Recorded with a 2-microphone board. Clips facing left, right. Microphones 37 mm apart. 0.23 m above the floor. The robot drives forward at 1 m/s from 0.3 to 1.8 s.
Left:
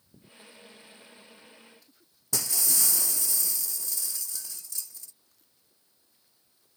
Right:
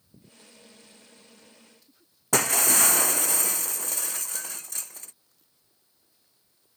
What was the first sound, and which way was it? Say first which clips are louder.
Breaking glass: right 10 dB; 55° right (ahead or behind).